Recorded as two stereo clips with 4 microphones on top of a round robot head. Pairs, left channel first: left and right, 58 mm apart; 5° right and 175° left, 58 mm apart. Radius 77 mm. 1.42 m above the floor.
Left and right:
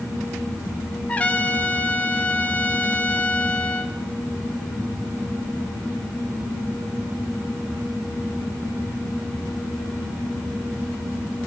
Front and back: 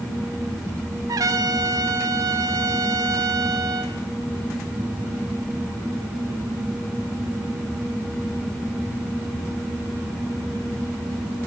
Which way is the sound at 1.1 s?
155° left.